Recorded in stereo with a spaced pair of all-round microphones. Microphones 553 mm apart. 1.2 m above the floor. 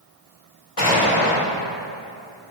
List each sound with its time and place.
0.8 s an explosion: 70° left (ahead or behind), 1.8 m